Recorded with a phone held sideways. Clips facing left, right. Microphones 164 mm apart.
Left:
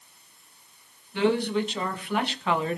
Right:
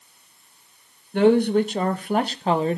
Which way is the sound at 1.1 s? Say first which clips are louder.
Right 7 dB; 50° right (ahead or behind).